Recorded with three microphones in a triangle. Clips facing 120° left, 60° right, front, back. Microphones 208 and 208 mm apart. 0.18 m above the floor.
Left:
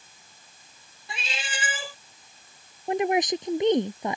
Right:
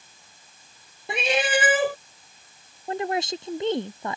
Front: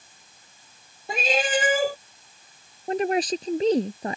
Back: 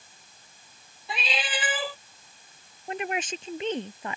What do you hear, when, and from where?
1.1 s a cat meowing: 40° right
2.9 s a woman speaking: 50° left